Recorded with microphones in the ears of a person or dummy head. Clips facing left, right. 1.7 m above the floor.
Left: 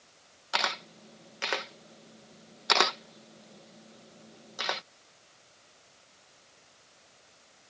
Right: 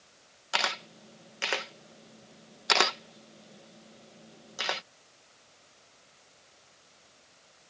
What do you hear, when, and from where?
0.5 s a camera shutter: centre (ahead or behind)